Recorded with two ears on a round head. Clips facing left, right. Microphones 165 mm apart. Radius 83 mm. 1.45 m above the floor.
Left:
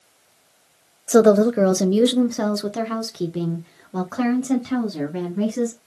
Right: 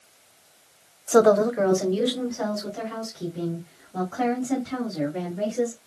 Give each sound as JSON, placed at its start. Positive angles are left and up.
{"t": 1.1, "sound": "a woman speaking", "side_deg": 20, "distance_m": 0.6}